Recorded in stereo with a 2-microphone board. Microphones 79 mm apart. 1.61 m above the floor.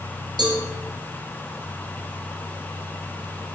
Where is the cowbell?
70° right (ahead or behind), 0.7 m.